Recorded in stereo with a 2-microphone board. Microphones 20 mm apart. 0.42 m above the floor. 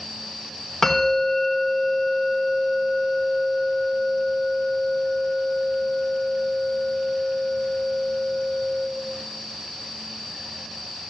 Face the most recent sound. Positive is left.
turn(degrees=20)  # may be behind; listen again after turning